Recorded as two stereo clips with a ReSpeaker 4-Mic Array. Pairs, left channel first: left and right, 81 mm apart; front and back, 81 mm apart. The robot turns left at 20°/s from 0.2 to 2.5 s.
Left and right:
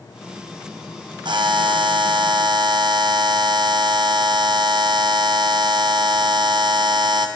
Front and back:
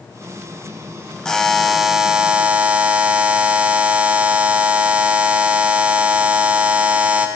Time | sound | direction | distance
1.2 | a buzzer | 80° right | 0.6 m